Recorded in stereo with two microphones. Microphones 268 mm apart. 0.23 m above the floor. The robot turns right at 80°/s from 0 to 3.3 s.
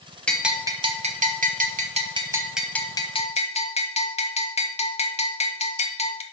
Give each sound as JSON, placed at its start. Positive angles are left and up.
{"t": 0.3, "sound": "a bell", "azimuth_deg": 170, "distance_m": 0.8}